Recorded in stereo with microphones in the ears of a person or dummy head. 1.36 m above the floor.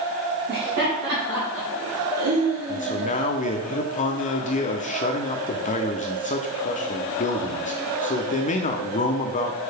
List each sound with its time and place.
0.5 s laughter: 60° right (ahead or behind), 3.5 m; by 3.7 s 5° right (ahead or behind), 2 m
2.7 s a man speaking: 35° left (ahead or behind), 0.7 m